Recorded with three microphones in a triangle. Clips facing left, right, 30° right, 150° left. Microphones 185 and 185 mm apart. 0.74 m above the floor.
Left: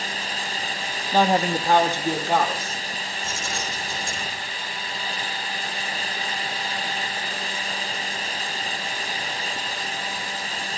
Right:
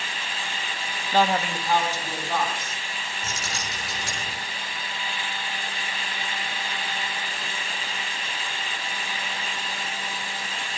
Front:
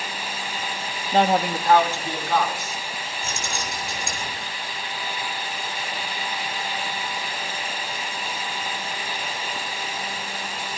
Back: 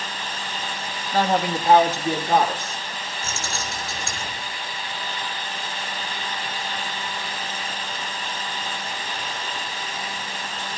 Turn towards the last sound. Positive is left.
turn(degrees=-105)